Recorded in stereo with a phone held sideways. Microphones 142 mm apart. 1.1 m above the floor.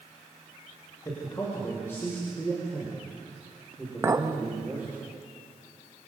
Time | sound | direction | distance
1.1 | a man speaking | 25° left (ahead or behind) | 5 m
4.0 | a clink | 20° right (ahead or behind) | 0.9 m